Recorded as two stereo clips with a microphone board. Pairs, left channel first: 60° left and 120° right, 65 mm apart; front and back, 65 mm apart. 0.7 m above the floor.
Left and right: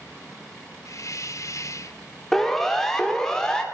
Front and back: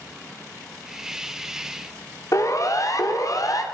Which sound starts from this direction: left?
A hiss, at 0.8 s.